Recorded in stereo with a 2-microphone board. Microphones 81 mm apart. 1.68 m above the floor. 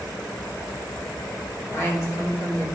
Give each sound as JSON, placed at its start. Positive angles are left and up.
{"t": 1.7, "sound": "a woman speaking", "side_deg": 35, "distance_m": 2.5}